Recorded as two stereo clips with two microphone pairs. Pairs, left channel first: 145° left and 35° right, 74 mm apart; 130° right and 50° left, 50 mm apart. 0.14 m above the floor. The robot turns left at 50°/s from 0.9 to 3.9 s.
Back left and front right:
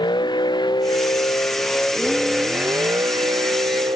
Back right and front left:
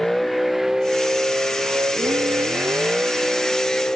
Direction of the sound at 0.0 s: 145° left.